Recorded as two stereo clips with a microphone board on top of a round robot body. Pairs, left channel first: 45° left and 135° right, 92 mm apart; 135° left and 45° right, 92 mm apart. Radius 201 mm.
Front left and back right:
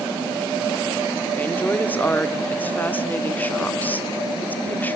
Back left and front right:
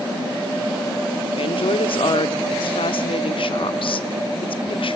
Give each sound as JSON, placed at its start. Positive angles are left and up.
{"t": 1.4, "sound": "a woman speaking", "azimuth_deg": 115, "distance_m": 1.7}